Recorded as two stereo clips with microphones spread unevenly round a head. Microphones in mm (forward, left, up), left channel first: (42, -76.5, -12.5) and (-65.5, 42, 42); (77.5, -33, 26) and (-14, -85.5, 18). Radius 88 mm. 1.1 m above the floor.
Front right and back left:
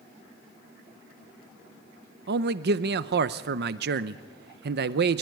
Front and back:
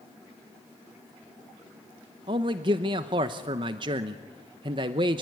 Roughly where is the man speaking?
Behind.